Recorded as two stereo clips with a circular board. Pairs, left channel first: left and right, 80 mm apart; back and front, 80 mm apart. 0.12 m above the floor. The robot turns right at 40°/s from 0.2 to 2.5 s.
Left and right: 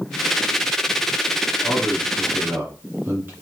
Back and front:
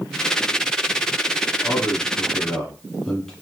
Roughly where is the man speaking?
Behind right.